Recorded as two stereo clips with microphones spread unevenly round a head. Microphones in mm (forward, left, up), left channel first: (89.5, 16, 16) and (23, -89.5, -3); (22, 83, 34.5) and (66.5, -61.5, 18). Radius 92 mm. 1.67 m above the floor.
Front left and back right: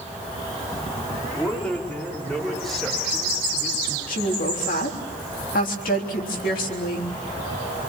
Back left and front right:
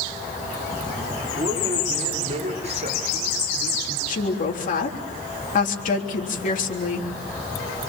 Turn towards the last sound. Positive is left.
turn(degrees=75)